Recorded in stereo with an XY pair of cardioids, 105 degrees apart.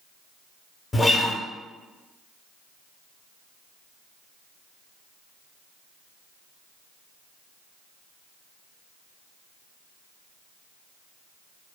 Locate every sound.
0.9 s a guitar: 25° left, 0.6 m